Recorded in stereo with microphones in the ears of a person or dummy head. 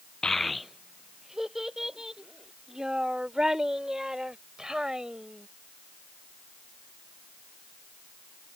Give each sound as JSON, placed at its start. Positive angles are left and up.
{"t": 0.2, "sound": "a child speaking", "side_deg": 5}